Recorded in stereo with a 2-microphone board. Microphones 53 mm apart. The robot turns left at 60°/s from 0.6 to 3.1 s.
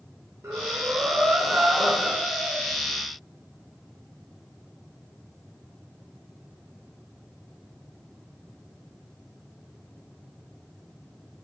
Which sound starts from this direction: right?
Breathing, at 0.4 s.